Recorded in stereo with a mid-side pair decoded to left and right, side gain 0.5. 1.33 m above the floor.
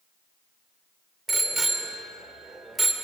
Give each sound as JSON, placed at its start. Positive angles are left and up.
{"t": 1.3, "sound": "a bicycle bell", "azimuth_deg": -20, "distance_m": 3.0}